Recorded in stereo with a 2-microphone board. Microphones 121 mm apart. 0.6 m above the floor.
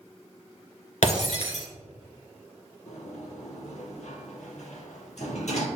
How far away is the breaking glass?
About 2.5 m.